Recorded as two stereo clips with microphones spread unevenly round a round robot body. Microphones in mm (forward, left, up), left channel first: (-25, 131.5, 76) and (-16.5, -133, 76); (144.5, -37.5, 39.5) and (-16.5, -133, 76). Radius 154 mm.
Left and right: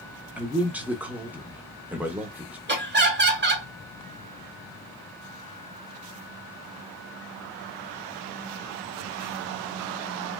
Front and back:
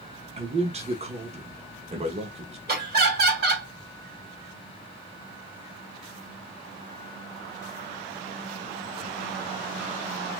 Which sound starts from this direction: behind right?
Laughter, at 2.7 s.